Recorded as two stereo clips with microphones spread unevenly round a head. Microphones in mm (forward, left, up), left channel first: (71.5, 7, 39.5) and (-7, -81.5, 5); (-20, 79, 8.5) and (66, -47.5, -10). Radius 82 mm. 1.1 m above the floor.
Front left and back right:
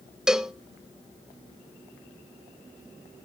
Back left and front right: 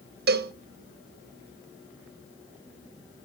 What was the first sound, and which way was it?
A cowbell, 40° right.